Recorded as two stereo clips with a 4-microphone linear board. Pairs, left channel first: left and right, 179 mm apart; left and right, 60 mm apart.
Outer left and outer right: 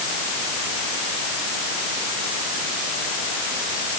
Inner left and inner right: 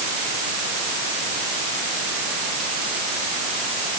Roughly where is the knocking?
No knocking in this recording.